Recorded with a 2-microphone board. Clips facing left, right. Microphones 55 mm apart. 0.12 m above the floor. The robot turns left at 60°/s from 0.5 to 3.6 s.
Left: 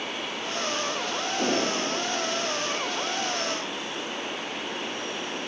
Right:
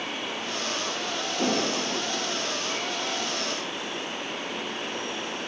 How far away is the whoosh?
About 5.5 m.